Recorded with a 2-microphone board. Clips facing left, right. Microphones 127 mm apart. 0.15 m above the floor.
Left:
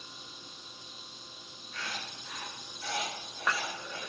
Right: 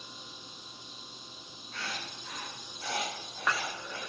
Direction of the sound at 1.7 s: 75° right (ahead or behind).